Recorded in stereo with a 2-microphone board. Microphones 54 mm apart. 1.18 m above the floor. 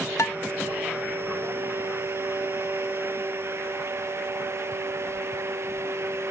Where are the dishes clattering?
65° left (ahead or behind).